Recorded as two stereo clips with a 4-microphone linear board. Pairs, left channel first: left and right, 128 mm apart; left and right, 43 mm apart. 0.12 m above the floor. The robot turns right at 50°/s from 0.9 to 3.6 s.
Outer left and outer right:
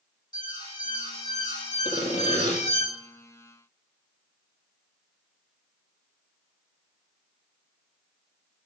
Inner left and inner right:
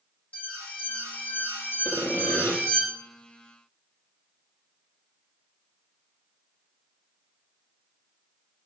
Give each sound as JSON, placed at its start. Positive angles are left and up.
{"t": 0.3, "sound": "an alarm", "azimuth_deg": 35, "distance_m": 8.0}
{"t": 1.9, "sound": "sawing", "azimuth_deg": 60, "distance_m": 4.5}